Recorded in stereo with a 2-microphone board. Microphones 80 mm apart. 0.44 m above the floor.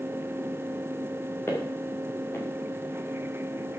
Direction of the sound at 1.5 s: 30° left (ahead or behind).